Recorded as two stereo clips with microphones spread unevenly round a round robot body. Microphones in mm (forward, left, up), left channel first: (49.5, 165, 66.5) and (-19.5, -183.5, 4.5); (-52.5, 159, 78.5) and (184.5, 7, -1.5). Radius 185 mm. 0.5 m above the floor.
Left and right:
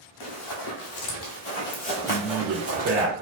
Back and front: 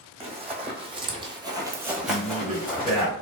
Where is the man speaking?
80° right, 1.9 m.